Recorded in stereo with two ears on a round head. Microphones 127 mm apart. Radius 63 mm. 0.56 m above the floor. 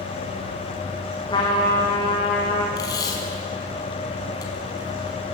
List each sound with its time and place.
1.3 s a trumpet: 30° left (ahead or behind), 5.5 m
2.8 s tape being pulled: 25° left (ahead or behind), 5 m